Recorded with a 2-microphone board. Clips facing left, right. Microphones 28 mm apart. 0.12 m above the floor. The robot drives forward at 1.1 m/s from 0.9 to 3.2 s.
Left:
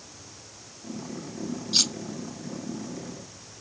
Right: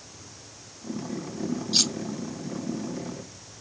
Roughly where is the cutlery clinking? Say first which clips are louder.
Left 1 dB; centre.